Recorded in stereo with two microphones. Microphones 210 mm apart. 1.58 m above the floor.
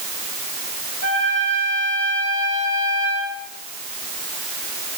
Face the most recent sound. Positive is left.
turn(degrees=-70)  # may be behind; listen again after turning